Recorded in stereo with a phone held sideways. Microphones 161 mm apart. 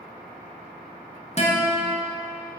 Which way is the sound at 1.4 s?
40° left (ahead or behind).